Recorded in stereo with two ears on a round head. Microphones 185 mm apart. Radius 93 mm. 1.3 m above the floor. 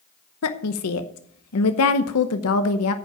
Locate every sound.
0.4 s a woman speaking: 85° left, 0.9 m